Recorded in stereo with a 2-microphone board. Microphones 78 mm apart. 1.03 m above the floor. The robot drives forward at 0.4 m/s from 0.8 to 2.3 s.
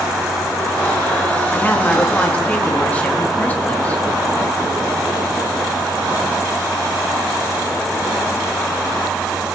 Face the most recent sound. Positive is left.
turn(degrees=15)  # may be behind; listen again after turning